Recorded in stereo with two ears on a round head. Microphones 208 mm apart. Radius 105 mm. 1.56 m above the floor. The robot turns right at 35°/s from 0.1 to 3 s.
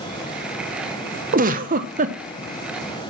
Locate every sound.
1.3 s a giggle: 35° right (ahead or behind), 0.6 m